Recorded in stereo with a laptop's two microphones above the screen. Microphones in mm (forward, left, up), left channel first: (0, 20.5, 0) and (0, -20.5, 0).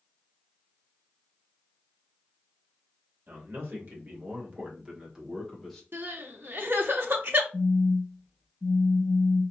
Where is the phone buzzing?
5° right (ahead or behind), 2.5 m.